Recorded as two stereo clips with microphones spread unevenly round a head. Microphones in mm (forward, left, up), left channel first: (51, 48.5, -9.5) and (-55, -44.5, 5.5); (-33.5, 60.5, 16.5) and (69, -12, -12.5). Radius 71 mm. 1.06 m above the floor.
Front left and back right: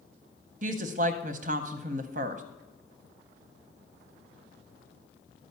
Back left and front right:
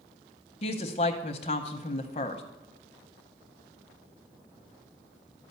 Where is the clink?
No clink in this recording.